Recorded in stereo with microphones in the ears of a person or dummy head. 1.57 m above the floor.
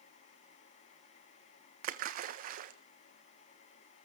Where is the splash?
55° right (ahead or behind), 1.2 m.